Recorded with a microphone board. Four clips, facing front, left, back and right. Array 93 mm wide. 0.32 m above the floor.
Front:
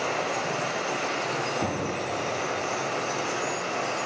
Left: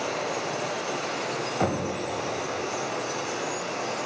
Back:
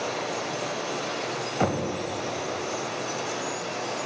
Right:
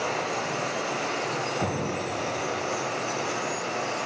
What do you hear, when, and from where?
0.0 s running water: 25° right, 1.0 m
1.6 s knocking: 155° left, 0.9 m